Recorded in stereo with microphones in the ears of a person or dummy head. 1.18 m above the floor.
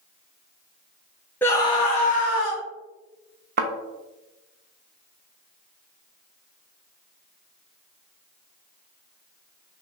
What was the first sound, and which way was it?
A scream, 10° left (ahead or behind).